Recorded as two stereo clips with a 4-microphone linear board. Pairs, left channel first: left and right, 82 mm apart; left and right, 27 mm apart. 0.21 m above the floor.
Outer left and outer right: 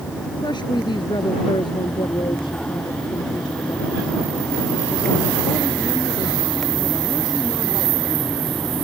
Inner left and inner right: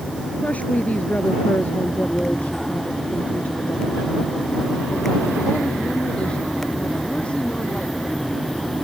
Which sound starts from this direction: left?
A woman speaking, at 0.4 s.